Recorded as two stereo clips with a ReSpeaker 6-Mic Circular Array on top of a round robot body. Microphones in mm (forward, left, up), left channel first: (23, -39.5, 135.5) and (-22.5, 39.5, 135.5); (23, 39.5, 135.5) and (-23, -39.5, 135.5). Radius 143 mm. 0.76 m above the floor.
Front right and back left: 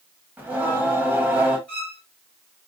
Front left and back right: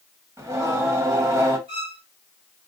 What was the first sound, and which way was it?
Singing, 170° right.